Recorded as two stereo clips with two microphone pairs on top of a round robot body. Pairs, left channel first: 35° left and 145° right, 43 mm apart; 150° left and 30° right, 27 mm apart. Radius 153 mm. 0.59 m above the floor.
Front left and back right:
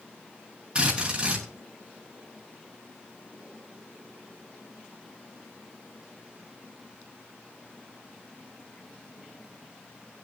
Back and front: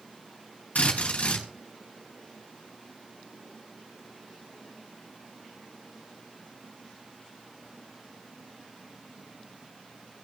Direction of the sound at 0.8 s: 155° left.